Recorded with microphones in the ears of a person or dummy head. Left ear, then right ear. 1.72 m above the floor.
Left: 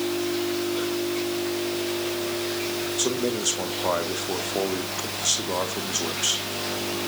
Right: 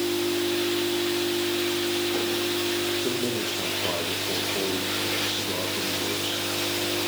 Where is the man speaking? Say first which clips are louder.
Left 2 dB; 50° left (ahead or behind), 2 m.